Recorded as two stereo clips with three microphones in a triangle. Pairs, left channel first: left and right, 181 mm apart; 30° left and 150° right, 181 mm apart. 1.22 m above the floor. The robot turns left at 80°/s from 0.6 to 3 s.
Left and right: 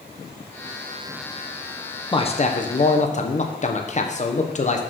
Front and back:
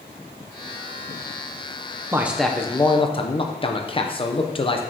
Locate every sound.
2.1 s a man speaking: 145° left, 0.7 m; by 4.8 s 70° left, 0.7 m